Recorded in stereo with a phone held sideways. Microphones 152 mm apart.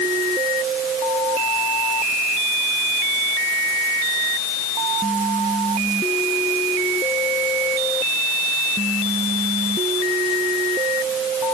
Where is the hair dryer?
I don't hear a hair dryer.